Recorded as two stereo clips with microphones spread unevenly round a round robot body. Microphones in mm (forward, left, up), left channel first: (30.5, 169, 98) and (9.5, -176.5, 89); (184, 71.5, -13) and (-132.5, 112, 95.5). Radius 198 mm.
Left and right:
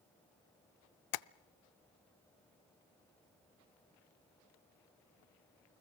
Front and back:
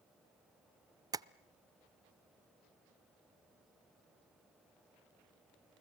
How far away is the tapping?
About 0.5 m.